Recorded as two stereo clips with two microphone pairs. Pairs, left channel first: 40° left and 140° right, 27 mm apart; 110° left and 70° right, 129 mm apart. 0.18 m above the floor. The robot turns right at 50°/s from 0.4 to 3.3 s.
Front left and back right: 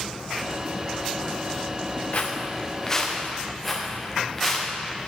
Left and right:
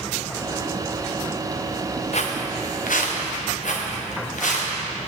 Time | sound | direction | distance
2.1 | footsteps | 80° left | 1.6 m